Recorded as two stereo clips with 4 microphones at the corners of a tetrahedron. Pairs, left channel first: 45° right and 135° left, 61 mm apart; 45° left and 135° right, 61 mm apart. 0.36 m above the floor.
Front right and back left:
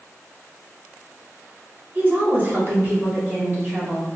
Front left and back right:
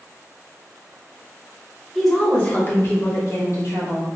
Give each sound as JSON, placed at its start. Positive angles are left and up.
{"t": 1.9, "sound": "a woman speaking", "azimuth_deg": 135, "distance_m": 1.0}